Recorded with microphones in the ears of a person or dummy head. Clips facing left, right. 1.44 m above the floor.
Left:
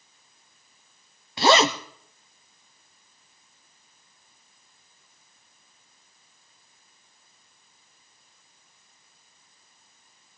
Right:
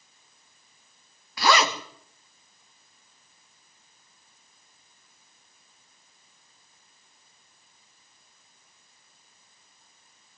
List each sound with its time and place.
1.4 s a zipper: 25° left (ahead or behind), 0.7 m